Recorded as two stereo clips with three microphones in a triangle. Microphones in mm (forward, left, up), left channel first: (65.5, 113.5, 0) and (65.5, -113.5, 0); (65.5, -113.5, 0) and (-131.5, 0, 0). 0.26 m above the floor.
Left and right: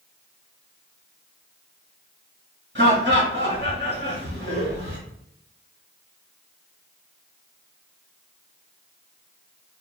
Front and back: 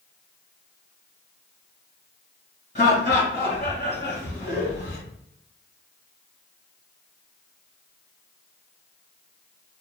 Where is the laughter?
80° right, 1.7 m.